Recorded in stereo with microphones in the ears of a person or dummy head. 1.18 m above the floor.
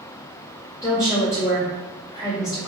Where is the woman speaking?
15° left (ahead or behind), 1.4 m.